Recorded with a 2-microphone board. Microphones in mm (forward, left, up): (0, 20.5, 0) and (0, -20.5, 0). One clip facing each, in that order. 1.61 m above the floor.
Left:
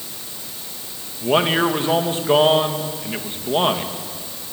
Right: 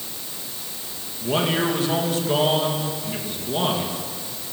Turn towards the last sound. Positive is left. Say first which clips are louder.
# left 5 dB
turn(degrees=35)  # may be behind; listen again after turning